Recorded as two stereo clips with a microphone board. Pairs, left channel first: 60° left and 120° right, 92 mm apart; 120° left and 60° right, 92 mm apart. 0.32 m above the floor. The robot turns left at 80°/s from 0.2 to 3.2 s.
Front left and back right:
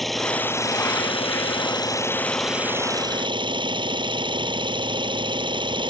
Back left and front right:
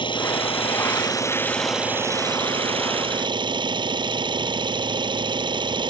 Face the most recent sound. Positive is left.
turn(degrees=-90)